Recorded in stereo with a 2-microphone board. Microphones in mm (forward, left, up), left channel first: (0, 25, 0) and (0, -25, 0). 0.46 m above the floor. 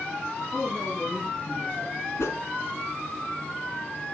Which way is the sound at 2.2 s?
70° left (ahead or behind).